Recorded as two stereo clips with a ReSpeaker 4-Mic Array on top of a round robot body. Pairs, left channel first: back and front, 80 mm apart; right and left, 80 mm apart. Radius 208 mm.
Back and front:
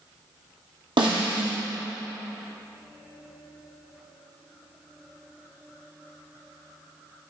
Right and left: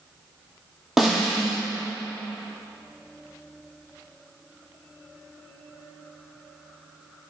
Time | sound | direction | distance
1.0 | a snare drum | 5° left | 2.5 m